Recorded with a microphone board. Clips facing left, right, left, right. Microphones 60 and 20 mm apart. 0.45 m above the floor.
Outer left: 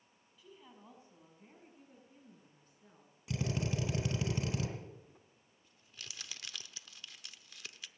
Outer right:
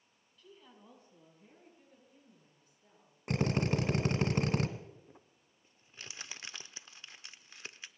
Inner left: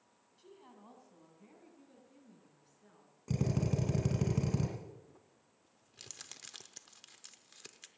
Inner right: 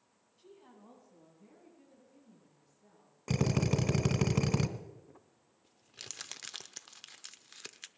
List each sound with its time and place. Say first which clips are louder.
0.4 s a woman speaking: even, even; 10° left (ahead or behind), 3.5 m; by 4.3 s 60° left (ahead or behind), 7 m
3.3 s a drill: outer right 6 dB, inner right 4 dB; 60° right (ahead or behind), 1.4 m
5.1 s crumpling: outer right 3 dB, inner right 3 dB; 30° right (ahead or behind), 0.6 m